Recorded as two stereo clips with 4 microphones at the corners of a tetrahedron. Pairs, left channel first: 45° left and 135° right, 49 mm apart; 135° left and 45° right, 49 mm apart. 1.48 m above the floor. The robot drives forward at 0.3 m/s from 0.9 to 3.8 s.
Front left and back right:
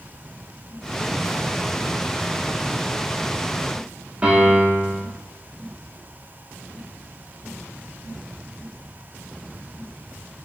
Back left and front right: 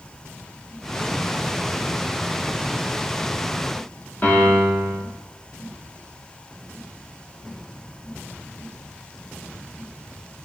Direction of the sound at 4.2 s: 175° left.